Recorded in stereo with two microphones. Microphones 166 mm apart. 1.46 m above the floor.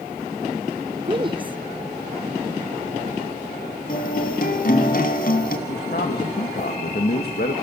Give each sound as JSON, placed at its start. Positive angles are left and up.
{"t": 1.0, "sound": "a woman speaking", "side_deg": -30, "distance_m": 0.6}
{"t": 3.9, "sound": "a guitar", "side_deg": 60, "distance_m": 2.5}
{"t": 5.7, "sound": "a man speaking", "side_deg": 70, "distance_m": 1.8}